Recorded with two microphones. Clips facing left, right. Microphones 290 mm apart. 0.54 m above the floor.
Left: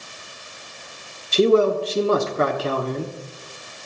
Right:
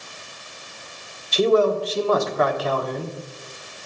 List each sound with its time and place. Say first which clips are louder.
1.3 s a man speaking: left 2 dB; 30° left (ahead or behind), 1.2 m